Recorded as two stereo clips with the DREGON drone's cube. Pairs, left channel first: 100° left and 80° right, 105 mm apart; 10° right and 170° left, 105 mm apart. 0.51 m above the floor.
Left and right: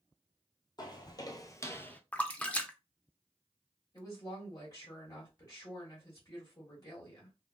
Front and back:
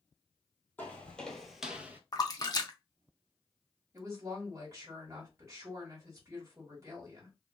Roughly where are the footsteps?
Ahead left.